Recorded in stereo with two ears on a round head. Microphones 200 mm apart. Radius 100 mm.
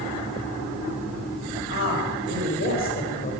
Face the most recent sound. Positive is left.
turn(degrees=40)  # may be behind; listen again after turning